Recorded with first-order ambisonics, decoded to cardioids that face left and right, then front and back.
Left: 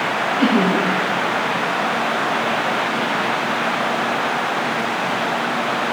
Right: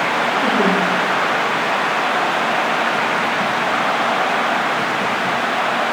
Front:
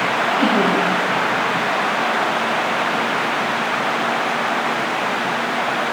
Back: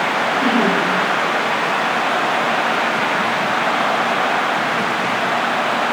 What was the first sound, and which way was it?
Laughter, 50° left.